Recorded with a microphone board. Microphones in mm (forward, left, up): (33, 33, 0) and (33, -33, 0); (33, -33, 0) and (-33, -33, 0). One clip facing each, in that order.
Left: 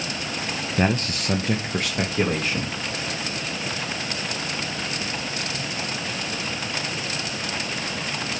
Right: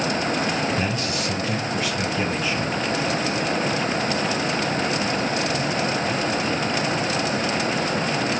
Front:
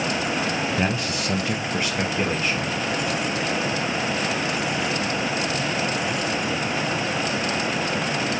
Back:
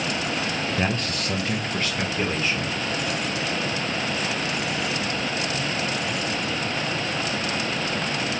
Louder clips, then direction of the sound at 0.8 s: Left 1 dB, front 1 dB; 85° left.